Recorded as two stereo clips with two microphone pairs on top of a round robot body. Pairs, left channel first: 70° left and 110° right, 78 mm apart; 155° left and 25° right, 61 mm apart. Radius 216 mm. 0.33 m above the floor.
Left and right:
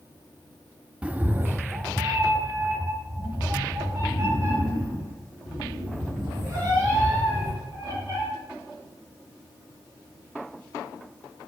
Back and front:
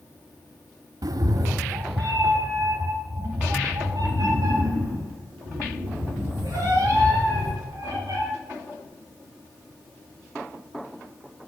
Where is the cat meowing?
30° right, 0.6 m; by 8.2 s 60° right, 5.5 m.